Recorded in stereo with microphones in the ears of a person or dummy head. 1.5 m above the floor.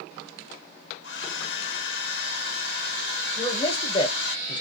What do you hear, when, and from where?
1.0 s a hair dryer: 70° left (ahead or behind), 1.2 m
3.4 s a man speaking: 25° left (ahead or behind), 1.0 m